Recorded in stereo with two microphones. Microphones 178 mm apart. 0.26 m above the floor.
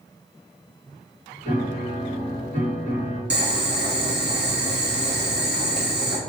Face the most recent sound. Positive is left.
turn(degrees=-65)  # may be behind; listen again after turning